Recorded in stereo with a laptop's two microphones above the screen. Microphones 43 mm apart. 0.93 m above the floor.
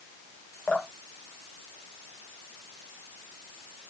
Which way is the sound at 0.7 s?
40° left (ahead or behind).